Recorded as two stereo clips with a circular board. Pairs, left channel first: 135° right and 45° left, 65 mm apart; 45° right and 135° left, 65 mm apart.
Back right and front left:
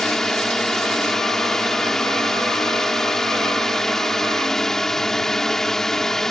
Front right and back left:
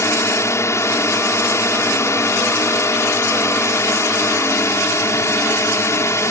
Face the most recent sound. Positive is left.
turn(degrees=-55)